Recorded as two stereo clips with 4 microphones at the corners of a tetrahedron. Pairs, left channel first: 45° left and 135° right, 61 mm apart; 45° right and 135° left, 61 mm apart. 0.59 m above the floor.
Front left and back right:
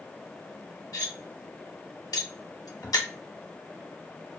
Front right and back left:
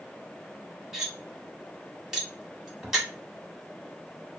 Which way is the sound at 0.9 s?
50° left.